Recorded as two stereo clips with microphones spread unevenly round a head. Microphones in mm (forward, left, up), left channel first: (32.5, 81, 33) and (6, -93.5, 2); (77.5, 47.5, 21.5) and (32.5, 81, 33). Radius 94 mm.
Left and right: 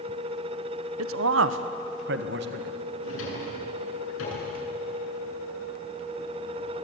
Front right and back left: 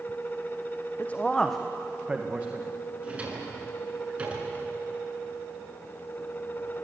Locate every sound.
1.0 s a man speaking: 120° right, 0.9 m; by 2.7 s 140° right, 1.9 m
3.0 s a drawer: 80° left, 9 m